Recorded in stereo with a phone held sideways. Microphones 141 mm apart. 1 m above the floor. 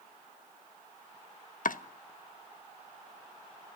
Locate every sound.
1.6 s chopping: 75° left (ahead or behind), 0.9 m